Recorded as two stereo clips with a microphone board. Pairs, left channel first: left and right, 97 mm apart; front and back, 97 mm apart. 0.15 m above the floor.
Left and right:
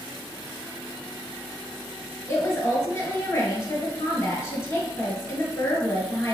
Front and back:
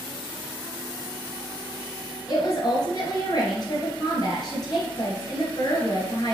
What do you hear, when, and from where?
2.3 s a woman speaking: 30° left, 1.9 m